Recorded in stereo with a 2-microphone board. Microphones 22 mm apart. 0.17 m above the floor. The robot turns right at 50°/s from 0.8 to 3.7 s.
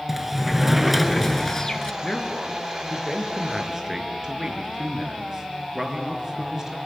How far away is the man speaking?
About 3 m.